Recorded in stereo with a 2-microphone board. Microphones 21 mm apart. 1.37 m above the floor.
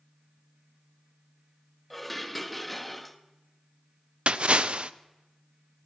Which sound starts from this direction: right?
A splash, at 4.3 s.